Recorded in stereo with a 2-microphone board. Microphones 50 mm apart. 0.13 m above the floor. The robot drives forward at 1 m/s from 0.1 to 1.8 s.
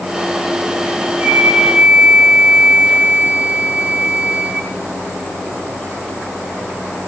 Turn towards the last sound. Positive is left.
turn(degrees=-30)  # may be behind; listen again after turning